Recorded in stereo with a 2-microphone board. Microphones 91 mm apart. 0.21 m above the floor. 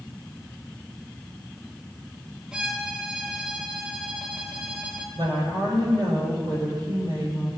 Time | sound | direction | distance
2.5 | a violin | 10° right (ahead or behind) | 2 m
5.2 | a woman speaking | 50° right (ahead or behind) | 6 m